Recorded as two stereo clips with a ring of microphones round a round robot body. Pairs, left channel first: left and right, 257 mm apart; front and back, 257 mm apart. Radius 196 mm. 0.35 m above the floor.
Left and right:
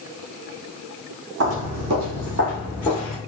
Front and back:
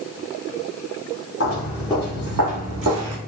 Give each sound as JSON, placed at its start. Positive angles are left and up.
{"t": 1.4, "sound": "footsteps", "azimuth_deg": -65, "distance_m": 1.1}